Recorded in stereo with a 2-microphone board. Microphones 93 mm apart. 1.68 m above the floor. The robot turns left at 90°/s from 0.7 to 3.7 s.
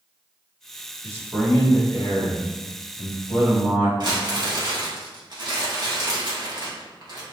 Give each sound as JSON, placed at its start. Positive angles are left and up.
{"t": 1.0, "sound": "a man speaking", "azimuth_deg": -145, "distance_m": 3.0}
{"t": 4.0, "sound": "crumpling", "side_deg": -50, "distance_m": 2.0}